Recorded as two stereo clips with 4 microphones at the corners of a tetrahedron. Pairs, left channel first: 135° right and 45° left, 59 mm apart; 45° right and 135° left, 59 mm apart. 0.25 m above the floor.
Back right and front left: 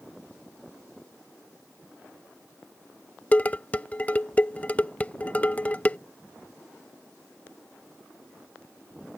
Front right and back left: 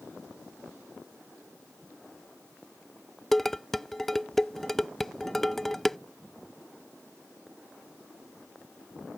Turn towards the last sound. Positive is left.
turn(degrees=-125)